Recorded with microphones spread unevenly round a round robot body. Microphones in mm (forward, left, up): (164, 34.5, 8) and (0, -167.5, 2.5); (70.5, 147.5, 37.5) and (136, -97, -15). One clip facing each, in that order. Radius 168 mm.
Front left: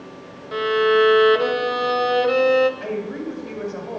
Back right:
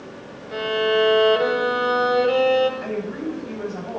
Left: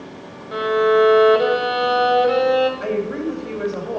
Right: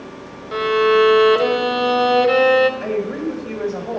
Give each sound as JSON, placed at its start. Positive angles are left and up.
{"t": 0.5, "sound": "a violin", "azimuth_deg": -15, "distance_m": 0.8}
{"t": 2.8, "sound": "a woman speaking", "azimuth_deg": 25, "distance_m": 2.0}